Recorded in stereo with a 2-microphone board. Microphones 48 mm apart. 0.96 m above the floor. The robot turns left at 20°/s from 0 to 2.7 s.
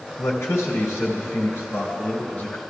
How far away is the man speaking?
About 3 m.